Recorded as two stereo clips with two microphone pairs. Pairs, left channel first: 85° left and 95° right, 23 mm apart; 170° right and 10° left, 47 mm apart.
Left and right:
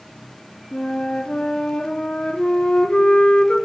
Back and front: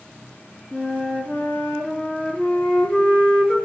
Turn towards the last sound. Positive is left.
turn(degrees=125)